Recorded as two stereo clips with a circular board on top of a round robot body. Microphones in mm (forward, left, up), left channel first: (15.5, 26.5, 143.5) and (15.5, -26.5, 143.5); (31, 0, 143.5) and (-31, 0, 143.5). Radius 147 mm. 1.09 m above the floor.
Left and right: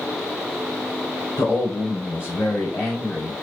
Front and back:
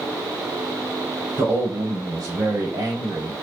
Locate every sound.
1.4 s a man speaking: 135° left, 3 m; by 3.3 s 165° left, 2.5 m